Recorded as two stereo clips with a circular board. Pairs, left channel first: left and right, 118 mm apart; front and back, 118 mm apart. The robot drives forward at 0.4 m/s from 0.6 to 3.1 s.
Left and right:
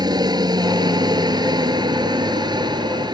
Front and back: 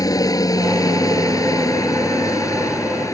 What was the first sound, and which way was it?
A helicopter, 50° right.